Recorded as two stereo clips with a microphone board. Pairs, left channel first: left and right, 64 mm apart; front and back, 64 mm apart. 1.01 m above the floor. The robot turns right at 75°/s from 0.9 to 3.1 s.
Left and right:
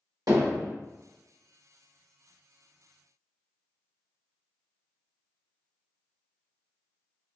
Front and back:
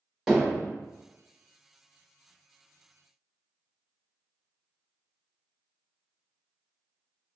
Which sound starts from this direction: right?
Hammering, at 0.3 s.